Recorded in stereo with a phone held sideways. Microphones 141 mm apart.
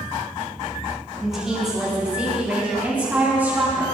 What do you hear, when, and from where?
1.2 s a woman speaking: centre (ahead or behind), 9.5 m; by 3.8 s 10° right (ahead or behind), 11 m